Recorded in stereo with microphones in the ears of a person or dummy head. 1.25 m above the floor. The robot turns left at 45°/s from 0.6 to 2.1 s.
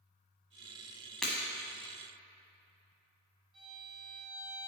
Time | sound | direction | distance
1.2 | breaking glass | centre (ahead or behind) | 1.1 m
3.5 | a violin | 30° right (ahead or behind) | 1.9 m